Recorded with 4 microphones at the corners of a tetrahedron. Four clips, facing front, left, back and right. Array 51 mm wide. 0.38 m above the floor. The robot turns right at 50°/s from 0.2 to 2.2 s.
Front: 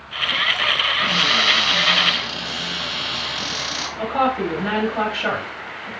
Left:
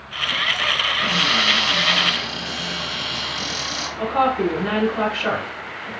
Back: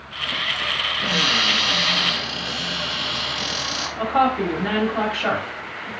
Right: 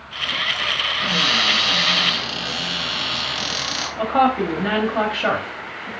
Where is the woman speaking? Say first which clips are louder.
Right 2 dB, back 1 dB; 90° right, 1.6 m.